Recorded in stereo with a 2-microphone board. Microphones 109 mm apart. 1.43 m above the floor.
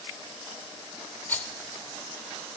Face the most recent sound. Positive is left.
turn(degrees=15)  # may be behind; listen again after turning